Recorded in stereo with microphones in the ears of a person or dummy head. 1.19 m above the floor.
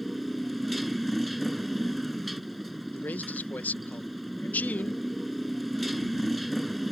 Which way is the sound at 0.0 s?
Centre (ahead or behind).